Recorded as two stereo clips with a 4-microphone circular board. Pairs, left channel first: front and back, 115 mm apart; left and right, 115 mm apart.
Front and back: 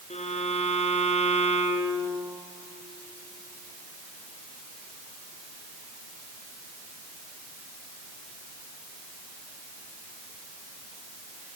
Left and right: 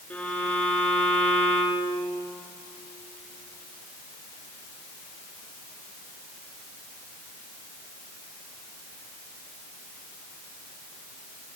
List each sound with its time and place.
0.1 s a violin: 15° left, 3.5 m